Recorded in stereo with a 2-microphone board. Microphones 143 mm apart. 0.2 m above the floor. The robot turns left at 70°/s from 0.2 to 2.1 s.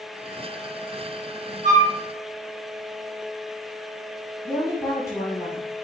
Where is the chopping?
I don't hear chopping.